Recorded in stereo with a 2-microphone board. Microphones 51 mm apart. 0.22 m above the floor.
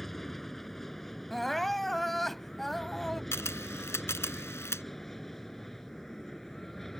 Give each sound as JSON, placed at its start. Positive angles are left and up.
{"t": 0.0, "sound": "an aircraft", "side_deg": 5}
{"t": 1.3, "sound": "crying", "side_deg": 5}
{"t": 3.3, "sound": "a camera shutter", "side_deg": 60}